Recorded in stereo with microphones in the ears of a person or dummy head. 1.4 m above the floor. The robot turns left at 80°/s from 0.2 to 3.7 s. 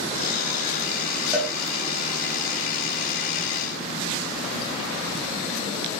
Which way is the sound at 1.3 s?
10° right (ahead or behind).